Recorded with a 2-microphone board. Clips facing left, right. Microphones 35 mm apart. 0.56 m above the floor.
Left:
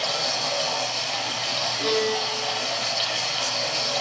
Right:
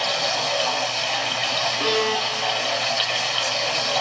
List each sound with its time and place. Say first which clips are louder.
0.0 s running water: right 3 dB; 50° right (ahead or behind), 5 m
1.8 s a violin: even; 65° right (ahead or behind), 4 m